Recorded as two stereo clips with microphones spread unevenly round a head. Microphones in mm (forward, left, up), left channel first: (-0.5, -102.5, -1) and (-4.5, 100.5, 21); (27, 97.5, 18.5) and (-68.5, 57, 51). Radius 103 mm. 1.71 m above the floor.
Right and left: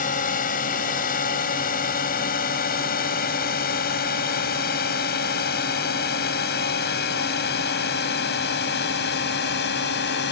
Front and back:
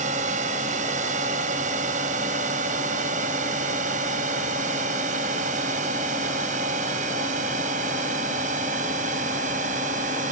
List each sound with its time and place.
0.0 s a drone: 140° right; by 10.3 s 130° right